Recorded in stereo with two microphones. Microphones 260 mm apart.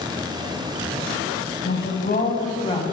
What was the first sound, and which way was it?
A woman speaking, 45° left (ahead or behind).